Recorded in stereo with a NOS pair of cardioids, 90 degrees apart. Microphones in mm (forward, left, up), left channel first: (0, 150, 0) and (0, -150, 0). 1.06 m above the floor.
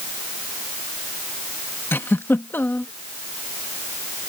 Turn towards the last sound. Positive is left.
turn(degrees=5)